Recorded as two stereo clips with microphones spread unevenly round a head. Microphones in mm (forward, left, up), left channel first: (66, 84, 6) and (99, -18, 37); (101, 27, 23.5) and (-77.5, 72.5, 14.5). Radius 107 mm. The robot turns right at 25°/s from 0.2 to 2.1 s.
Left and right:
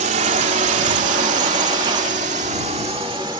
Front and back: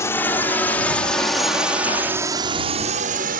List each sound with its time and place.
0.0 s a drone: 90° right; by 3.4 s 145° right